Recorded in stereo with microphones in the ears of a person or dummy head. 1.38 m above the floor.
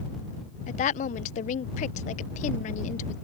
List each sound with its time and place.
0.7 s a woman speaking: 40° left (ahead or behind)